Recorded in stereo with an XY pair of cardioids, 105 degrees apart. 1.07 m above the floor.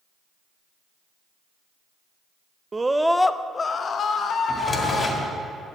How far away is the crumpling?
No crumpling in this recording.